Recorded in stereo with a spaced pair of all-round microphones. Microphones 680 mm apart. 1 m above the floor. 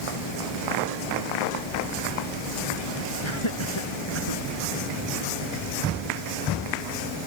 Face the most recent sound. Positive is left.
turn(degrees=45)  # may be behind; listen again after turning